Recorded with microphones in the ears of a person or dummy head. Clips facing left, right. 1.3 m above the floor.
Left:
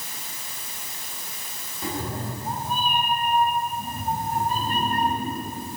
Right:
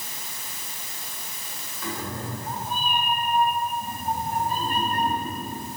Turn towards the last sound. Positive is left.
turn(degrees=45)  # may be behind; listen again after turning